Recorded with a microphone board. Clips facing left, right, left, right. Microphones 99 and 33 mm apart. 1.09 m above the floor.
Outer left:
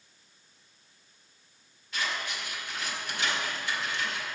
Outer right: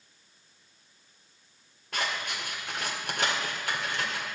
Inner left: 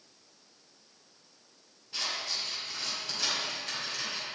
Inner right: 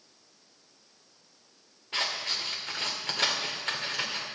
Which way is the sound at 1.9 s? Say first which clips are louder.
Outer right 1 dB, inner right 4 dB; 60° right (ahead or behind).